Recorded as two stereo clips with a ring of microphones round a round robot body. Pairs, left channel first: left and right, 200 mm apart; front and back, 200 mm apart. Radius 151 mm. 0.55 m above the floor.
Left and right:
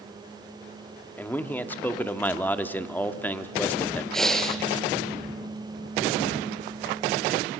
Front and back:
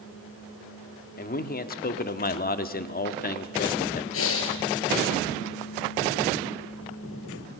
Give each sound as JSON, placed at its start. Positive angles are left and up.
{"t": 1.2, "sound": "a man speaking", "azimuth_deg": 10, "distance_m": 1.2}
{"t": 4.1, "sound": "breathing", "azimuth_deg": 5, "distance_m": 2.0}